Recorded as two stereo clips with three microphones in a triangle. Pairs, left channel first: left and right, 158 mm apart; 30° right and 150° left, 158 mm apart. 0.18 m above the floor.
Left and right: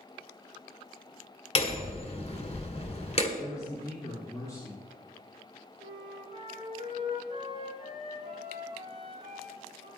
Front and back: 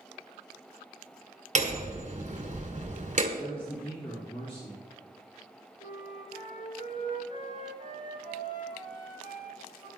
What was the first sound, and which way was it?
Hammering, 125° left.